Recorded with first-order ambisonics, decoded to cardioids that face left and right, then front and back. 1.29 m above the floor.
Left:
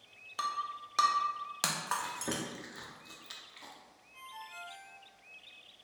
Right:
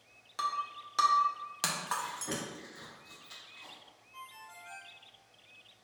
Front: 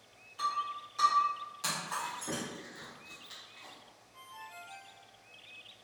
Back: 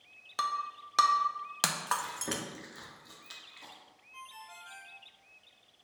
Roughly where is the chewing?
Behind left.